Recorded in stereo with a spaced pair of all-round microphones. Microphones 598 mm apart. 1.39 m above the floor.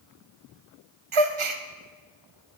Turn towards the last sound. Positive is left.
turn(degrees=-55)  # may be behind; listen again after turning